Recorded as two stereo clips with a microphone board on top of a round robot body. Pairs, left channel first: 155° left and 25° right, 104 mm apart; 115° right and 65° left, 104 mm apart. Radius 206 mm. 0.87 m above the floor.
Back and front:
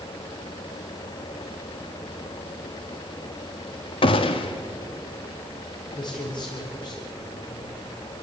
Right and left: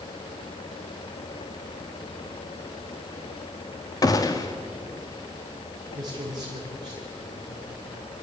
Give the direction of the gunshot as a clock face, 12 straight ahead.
6 o'clock.